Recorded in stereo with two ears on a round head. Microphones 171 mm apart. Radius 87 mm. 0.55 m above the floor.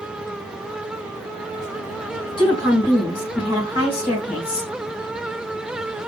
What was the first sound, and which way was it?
A woman speaking, 30° left (ahead or behind).